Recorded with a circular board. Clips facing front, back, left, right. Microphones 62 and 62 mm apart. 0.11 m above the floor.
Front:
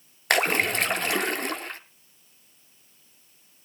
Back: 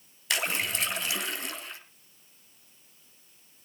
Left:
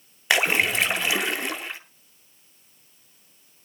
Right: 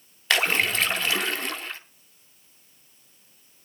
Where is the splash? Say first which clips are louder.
Front 8 dB, left 2 dB; 20° left, 0.8 m.